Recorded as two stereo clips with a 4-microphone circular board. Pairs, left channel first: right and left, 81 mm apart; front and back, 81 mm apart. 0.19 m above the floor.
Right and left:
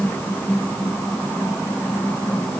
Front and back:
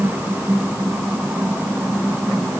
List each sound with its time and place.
Only background noise.